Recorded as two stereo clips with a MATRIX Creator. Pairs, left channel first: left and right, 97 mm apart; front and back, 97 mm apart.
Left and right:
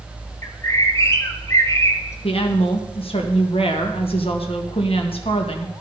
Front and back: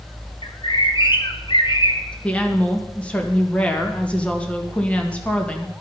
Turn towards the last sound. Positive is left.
turn(degrees=80)